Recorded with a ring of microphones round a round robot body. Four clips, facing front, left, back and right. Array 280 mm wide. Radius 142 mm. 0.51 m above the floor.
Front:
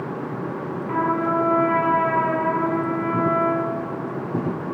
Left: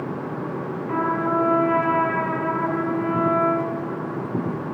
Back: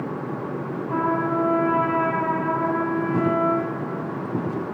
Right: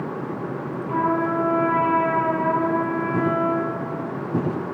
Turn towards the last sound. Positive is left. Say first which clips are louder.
# right 1 dB, front 1 dB
turn(degrees=15)